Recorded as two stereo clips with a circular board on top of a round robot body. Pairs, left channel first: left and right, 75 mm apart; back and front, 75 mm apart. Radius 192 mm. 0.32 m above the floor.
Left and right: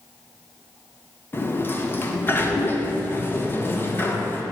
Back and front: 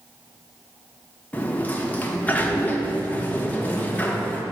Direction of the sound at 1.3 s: 130° left.